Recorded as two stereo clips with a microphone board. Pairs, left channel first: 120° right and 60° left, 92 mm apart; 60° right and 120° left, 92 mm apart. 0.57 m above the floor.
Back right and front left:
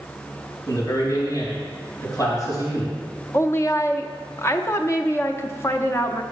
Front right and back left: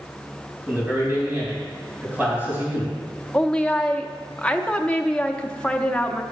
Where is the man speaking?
170° right, 4 m.